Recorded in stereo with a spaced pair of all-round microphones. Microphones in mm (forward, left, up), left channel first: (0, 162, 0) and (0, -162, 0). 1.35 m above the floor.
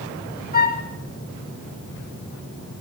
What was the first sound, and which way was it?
A flute, 30° left (ahead or behind).